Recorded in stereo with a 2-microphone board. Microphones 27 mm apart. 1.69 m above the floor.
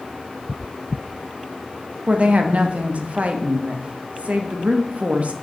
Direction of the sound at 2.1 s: 55° right (ahead or behind).